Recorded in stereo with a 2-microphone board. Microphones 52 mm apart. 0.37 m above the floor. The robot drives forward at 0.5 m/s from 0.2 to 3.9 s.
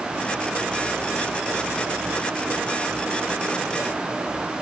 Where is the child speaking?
I don't hear a child speaking.